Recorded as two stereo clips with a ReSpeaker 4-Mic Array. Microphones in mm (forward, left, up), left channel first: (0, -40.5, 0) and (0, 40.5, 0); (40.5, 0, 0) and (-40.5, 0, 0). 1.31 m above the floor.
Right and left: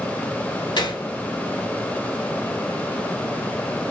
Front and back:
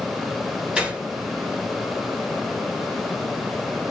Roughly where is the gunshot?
Right.